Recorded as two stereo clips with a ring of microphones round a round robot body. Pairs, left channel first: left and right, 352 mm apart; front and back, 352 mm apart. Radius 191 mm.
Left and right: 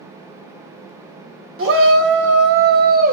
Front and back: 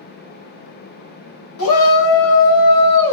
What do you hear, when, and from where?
1.6 s a shout: 35° right, 2.5 m; by 3.1 s 25° right, 3 m